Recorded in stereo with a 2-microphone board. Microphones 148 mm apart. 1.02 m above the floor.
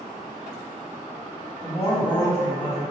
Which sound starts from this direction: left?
A man speaking, at 1.6 s.